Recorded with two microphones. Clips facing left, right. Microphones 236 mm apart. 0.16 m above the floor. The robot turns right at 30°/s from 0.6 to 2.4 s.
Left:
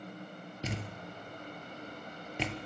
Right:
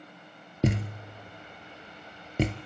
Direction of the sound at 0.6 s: 65° right (ahead or behind).